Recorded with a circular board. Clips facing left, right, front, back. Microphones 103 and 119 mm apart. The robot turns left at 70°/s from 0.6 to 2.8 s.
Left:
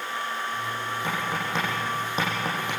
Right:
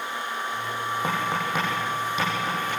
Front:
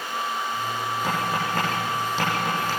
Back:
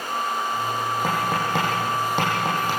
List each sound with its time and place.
1.0 s tapping: 135° right, 8 m; by 2.7 s 110° left, 8 m